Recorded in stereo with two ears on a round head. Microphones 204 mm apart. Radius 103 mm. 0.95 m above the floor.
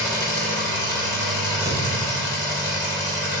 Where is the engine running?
15° left (ahead or behind), 1.2 m.